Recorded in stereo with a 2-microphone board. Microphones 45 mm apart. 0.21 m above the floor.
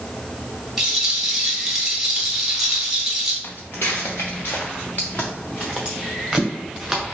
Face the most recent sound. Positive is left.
turn(degrees=-5)  # may be behind; listen again after turning